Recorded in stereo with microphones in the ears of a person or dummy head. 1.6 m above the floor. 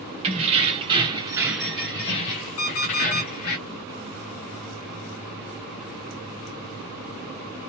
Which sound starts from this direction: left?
An alarm clock, at 2.6 s.